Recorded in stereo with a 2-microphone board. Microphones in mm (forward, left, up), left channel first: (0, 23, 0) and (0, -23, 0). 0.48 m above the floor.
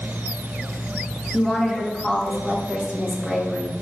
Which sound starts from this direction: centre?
A woman speaking, at 1.3 s.